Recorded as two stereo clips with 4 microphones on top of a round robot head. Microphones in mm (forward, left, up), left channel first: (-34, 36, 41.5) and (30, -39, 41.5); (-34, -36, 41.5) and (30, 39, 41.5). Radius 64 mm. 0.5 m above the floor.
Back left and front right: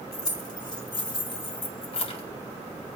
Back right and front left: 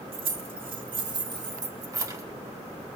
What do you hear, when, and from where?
0.1 s keys jangling: 80° left, 2.5 m; by 2.2 s 110° left, 1.8 m